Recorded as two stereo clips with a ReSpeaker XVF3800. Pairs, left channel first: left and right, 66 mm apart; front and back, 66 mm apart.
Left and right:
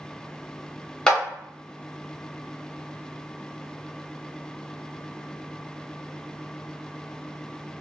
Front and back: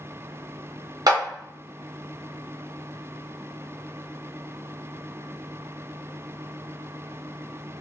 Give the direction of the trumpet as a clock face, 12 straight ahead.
I don't hear a trumpet.